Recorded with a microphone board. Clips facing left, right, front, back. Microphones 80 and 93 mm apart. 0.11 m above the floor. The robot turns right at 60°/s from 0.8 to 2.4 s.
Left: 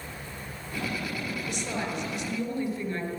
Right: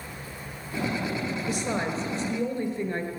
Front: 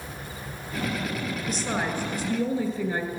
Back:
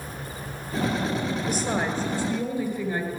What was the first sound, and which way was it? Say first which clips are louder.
A woman speaking: right 4 dB, even; 100° right.